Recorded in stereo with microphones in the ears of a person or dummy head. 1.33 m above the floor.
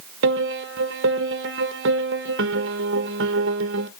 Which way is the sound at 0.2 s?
70° right (ahead or behind).